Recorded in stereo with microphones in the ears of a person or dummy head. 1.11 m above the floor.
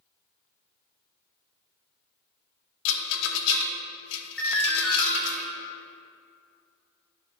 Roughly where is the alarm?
Centre.